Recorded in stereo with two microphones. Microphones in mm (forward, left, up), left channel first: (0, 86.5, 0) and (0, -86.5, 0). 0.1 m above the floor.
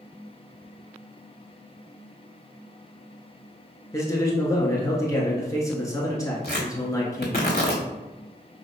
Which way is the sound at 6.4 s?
60° left (ahead or behind).